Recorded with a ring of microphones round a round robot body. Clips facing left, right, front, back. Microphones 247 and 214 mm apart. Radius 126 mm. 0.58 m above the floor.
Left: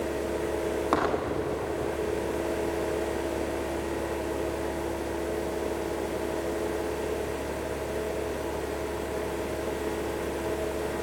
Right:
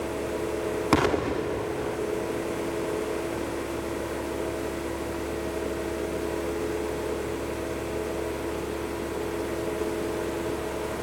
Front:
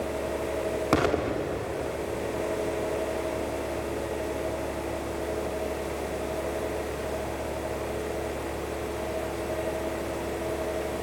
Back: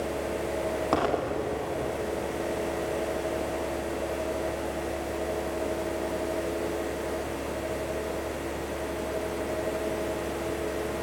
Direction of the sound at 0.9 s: 60° right.